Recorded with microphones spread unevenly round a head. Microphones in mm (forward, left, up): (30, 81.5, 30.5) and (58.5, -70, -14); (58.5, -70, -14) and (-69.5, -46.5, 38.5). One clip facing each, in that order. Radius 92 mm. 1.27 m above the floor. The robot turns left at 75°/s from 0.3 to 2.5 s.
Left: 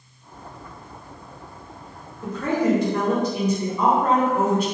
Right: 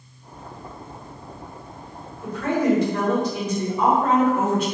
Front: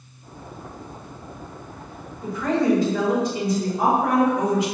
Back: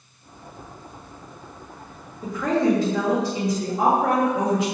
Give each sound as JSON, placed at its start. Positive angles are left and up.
{"t": 2.2, "sound": "a woman speaking", "azimuth_deg": 140, "distance_m": 1.8}